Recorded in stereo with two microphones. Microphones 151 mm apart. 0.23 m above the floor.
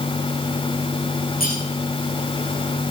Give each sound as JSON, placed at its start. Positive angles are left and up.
{"t": 1.4, "sound": "cutlery clinking", "side_deg": 75, "distance_m": 8.0}